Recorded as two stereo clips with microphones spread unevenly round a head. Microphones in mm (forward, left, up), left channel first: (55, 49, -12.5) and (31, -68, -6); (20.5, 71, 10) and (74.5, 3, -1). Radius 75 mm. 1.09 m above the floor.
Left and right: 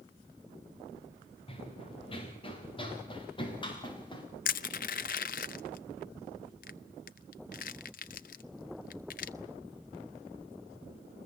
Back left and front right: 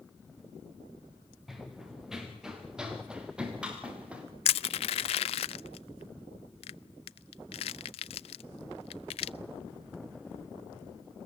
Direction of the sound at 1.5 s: 35° left.